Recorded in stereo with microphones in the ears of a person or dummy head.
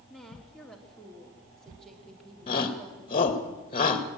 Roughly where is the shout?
Left.